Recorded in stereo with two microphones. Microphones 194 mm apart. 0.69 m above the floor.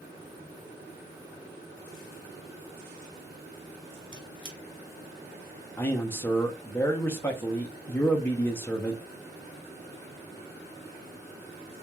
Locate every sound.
4.1 s a squeak: 25° left (ahead or behind), 1.1 m
5.8 s a man speaking: 10° left (ahead or behind), 0.6 m